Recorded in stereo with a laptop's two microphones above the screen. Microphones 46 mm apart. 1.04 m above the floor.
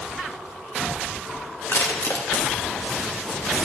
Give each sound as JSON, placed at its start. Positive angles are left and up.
{"t": 1.7, "sound": "crushing", "side_deg": 80, "distance_m": 1.3}